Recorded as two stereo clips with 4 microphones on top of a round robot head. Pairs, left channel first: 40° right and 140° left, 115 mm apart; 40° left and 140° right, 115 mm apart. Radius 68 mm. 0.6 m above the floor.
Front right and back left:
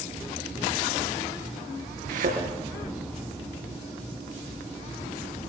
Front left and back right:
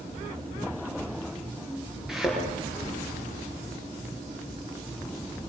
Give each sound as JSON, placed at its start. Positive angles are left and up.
{"t": 2.1, "sound": "a thud", "azimuth_deg": 130, "distance_m": 6.0}